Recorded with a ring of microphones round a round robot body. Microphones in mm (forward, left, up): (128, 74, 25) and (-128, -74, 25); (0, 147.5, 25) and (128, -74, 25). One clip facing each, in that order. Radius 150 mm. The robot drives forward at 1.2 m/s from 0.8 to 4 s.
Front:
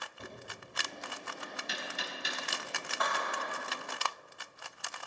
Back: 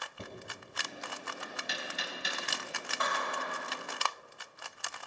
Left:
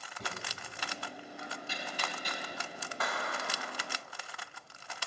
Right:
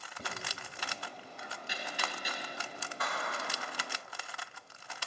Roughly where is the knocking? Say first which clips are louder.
Back 2 dB, even; behind right.